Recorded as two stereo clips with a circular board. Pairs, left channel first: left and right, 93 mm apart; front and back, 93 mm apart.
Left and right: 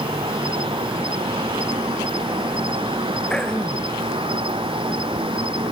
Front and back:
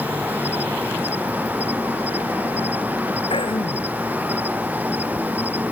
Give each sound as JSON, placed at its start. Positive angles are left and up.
{"t": 0.0, "sound": "an insect", "azimuth_deg": -110}
{"t": 3.3, "sound": "throat clearing", "azimuth_deg": 10}